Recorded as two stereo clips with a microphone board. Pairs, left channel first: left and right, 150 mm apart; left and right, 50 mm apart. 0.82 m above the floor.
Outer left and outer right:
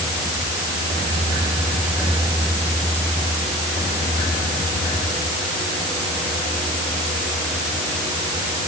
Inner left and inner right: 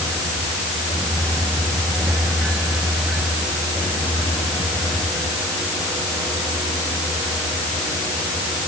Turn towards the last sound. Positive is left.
No sound to turn to.